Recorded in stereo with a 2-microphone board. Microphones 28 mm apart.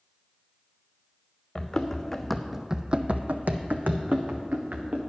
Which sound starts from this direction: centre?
Running footsteps, at 1.6 s.